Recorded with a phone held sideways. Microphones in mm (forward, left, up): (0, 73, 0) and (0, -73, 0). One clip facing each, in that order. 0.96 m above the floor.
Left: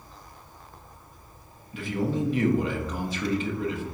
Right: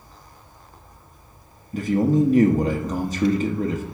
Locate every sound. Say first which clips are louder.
1.7 s a man speaking: right 9 dB; 40° right (ahead or behind), 1.0 m